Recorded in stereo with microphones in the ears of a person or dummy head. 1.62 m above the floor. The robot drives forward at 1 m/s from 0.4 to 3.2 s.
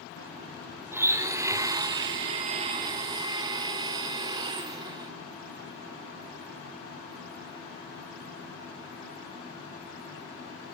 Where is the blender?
15° right (ahead or behind), 1.8 m; by 5.1 s 20° right (ahead or behind), 1.5 m.